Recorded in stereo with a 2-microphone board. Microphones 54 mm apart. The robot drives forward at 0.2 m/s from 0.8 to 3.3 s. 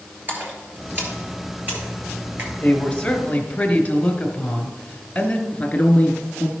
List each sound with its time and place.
0.3 s a splash: 40° right (ahead or behind), 2 m
2.6 s a woman speaking: 20° left (ahead or behind), 1.2 m; by 5.4 s 15° left (ahead or behind), 1.2 m
5.5 s a man speaking: 25° left (ahead or behind), 1.1 m